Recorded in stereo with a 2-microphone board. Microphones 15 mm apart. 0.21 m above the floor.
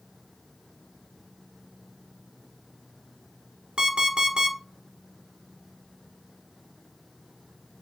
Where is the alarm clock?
65° right (ahead or behind), 1.2 m.